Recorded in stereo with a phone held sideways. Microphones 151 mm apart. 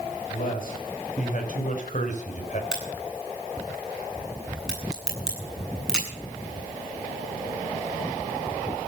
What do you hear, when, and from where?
0.3 s a man speaking: 65° left (ahead or behind), 5.5 m; by 2.6 s 55° left (ahead or behind), 3.5 m
2.7 s a crack: 5° right (ahead or behind), 9 m